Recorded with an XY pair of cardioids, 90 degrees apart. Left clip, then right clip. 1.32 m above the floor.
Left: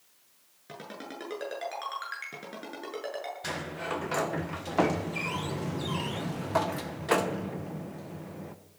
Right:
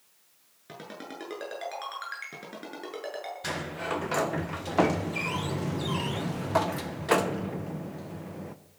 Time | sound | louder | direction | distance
0.7 | a ringtone | even | 5° right | 8 m
3.4 | a sliding door | right 4 dB | 15° right | 1.0 m